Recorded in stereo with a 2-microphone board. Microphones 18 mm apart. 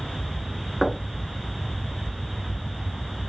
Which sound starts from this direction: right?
Knocking, at 0.8 s.